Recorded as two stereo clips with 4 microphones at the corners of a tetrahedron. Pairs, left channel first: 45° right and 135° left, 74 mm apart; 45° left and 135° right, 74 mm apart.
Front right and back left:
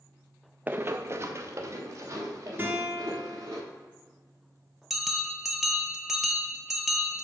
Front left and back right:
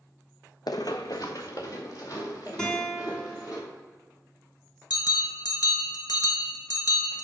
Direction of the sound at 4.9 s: 50° left.